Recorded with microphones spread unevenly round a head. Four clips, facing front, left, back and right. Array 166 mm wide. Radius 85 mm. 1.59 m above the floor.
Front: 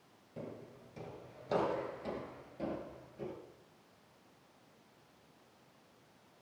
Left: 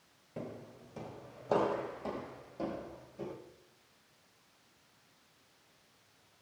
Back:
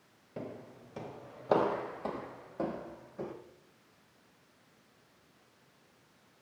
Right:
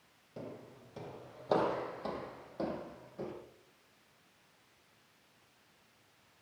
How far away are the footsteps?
About 2 m.